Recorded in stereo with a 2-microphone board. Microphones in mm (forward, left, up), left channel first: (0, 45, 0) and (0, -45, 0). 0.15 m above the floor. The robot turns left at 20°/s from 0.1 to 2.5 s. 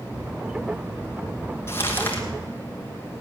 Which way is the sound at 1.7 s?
25° left (ahead or behind).